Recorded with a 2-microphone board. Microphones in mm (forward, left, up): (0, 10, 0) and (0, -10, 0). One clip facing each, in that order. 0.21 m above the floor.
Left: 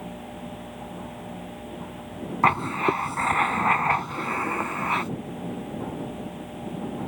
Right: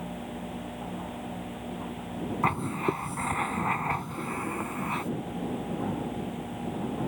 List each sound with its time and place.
2.4 s writing: 30° left (ahead or behind)